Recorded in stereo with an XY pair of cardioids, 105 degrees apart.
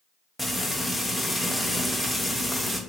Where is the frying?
10° left, 0.8 m.